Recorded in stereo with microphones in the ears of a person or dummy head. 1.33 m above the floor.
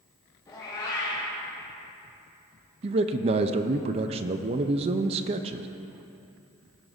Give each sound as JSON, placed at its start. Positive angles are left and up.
{"t": 0.5, "sound": "a cat meowing", "side_deg": 20, "distance_m": 3.0}
{"t": 2.8, "sound": "a man speaking", "side_deg": -30, "distance_m": 0.6}